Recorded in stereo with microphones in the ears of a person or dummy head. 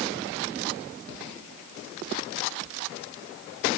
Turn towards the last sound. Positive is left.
No sound to turn to.